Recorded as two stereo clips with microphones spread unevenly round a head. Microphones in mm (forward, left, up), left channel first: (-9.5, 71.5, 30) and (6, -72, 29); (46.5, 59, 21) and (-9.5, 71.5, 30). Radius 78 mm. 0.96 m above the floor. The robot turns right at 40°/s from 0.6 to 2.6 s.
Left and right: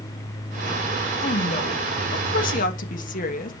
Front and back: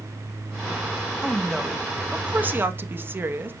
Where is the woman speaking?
60° left, 1.4 m; by 3.5 s 115° left, 1.4 m.